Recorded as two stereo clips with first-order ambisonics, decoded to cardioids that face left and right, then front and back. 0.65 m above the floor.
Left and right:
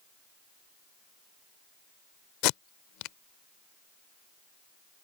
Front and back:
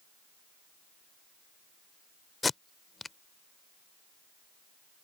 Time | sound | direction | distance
2.4 | tape being pulled | 75° left | ?